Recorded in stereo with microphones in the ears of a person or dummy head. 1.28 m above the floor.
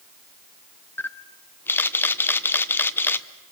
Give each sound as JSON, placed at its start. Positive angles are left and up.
{"t": 1.0, "sound": "a camera shutter", "side_deg": 10, "distance_m": 0.8}